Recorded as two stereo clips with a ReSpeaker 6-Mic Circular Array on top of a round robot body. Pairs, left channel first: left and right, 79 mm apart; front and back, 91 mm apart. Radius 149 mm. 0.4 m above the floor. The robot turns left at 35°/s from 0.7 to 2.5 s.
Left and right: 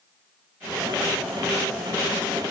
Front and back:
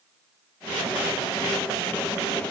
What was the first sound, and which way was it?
Only background noise.